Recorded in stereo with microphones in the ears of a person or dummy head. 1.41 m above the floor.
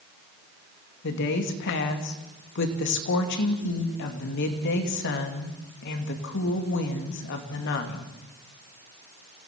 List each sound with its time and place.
1.0 s a woman speaking: 60° left (ahead or behind), 2.5 m